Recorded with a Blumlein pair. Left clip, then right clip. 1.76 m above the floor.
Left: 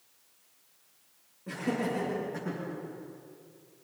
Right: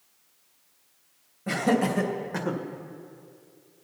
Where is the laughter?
55° right, 3 m.